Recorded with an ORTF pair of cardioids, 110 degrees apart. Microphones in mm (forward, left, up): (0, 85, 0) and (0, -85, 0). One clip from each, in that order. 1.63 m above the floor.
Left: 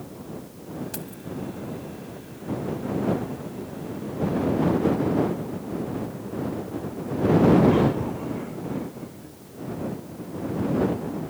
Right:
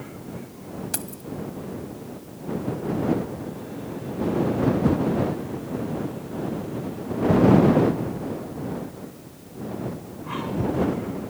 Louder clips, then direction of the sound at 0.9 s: Right 3 dB; 35° right.